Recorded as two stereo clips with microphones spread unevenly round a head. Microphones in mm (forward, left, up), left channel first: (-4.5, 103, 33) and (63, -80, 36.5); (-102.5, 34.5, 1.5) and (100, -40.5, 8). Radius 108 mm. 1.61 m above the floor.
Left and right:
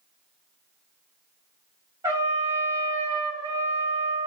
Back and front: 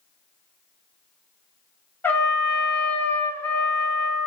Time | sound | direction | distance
2.0 | a trumpet | 125° right | 0.7 m